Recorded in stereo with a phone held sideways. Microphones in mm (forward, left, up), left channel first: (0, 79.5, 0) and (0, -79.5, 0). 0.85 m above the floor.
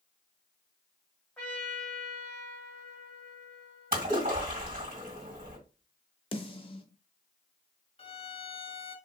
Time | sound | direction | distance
1.4 | a trumpet | 5° left (ahead or behind) | 1.4 m
3.9 | a splash | 60° right (ahead or behind) | 2 m
6.3 | a snare drum | 35° left (ahead or behind) | 0.6 m
8.0 | a violin | 35° left (ahead or behind) | 0.5 m